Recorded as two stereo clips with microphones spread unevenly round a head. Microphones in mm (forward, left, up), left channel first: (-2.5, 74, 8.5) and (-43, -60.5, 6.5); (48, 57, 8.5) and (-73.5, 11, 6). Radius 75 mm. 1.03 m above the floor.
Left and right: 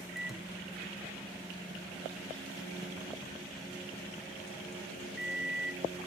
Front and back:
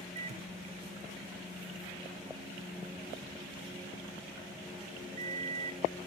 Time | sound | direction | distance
0.1 | a microwave | 165° left | 0.6 m